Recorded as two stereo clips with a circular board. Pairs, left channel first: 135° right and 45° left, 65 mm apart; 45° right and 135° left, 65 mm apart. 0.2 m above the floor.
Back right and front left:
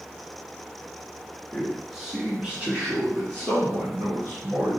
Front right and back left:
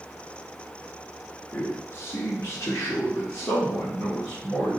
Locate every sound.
1.5 s a man speaking: 65° right, 1.1 m; by 4.8 s 5° right, 3 m